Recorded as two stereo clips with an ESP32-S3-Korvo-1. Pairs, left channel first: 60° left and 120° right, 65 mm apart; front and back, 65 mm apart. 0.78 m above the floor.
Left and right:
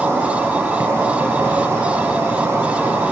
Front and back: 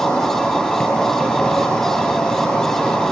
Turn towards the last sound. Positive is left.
turn(degrees=-75)